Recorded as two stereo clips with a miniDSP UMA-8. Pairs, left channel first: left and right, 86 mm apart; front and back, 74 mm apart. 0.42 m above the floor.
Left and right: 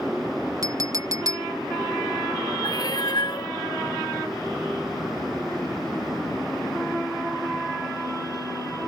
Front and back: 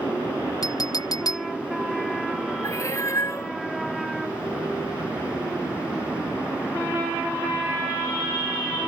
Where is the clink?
40° right.